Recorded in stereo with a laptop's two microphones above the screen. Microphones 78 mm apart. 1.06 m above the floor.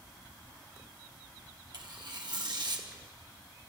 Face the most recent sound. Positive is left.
turn(degrees=-60)  # may be behind; listen again after turning